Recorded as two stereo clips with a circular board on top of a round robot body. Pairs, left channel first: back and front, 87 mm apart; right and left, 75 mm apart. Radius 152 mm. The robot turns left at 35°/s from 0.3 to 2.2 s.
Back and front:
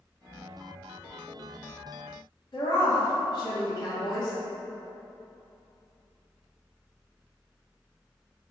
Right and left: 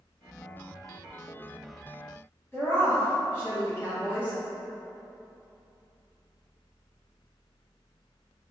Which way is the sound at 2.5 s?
150° right.